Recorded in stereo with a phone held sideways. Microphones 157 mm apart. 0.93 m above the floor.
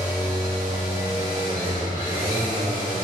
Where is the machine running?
75° right (ahead or behind), 1.9 m.